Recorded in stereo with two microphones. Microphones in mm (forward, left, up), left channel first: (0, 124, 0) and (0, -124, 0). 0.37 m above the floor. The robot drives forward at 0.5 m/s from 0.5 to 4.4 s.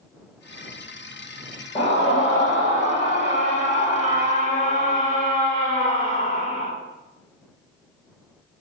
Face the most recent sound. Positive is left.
turn(degrees=30)  # may be behind; listen again after turning